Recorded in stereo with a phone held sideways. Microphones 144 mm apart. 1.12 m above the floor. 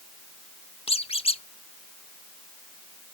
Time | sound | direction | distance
0.9 | a squeak | 45° left (ahead or behind) | 0.7 m